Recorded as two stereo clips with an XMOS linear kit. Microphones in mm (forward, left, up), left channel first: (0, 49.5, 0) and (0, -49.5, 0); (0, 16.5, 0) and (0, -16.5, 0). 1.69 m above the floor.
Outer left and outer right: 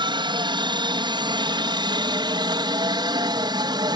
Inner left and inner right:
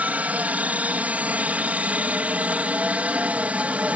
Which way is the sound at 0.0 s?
55° right (ahead or behind).